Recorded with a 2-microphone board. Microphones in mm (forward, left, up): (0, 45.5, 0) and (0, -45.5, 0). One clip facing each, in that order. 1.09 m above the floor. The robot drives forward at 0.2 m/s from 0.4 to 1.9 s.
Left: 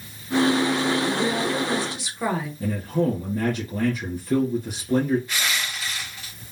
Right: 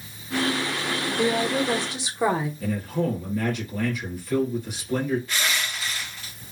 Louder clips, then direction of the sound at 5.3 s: Even; 10° left (ahead or behind).